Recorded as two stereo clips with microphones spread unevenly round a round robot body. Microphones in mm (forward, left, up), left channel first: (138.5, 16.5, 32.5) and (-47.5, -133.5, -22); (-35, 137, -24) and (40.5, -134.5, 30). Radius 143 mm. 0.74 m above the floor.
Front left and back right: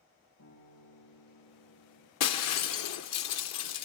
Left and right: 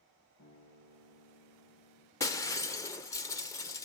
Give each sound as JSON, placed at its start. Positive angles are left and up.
{"t": 0.4, "sound": "a guitar", "azimuth_deg": 75, "distance_m": 8.0}
{"t": 2.2, "sound": "breaking glass", "azimuth_deg": 25, "distance_m": 0.9}